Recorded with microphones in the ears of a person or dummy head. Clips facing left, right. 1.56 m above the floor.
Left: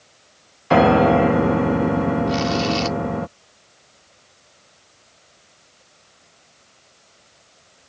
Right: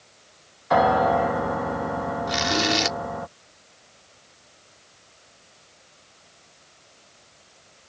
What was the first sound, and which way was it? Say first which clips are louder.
A piano: left 6 dB; 45° left (ahead or behind).